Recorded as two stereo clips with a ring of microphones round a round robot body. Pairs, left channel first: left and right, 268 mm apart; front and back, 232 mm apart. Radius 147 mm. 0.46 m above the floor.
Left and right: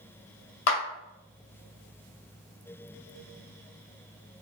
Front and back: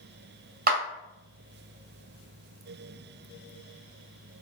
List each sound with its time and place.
0.7 s a clap: 130° left, 2 m